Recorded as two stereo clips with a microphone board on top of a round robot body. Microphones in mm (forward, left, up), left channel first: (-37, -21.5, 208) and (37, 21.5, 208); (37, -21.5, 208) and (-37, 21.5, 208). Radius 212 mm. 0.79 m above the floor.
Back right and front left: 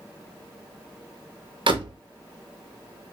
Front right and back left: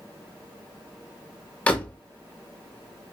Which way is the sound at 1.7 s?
45° left.